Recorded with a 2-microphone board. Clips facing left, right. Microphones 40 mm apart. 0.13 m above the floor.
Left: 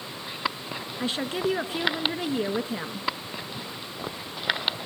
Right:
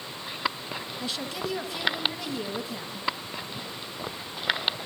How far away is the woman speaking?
About 1.4 m.